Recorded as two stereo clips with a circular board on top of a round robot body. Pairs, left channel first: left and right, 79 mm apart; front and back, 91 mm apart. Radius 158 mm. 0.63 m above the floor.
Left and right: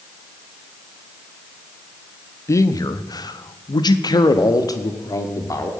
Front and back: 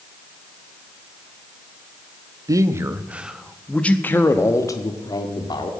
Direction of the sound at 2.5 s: 135° left.